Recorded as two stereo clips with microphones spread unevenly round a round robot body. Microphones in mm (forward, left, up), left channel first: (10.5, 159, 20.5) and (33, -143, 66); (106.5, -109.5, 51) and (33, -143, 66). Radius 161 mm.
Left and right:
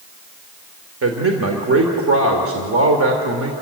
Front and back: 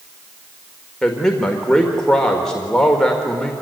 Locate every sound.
1.0 s a man speaking: 45° right, 1.8 m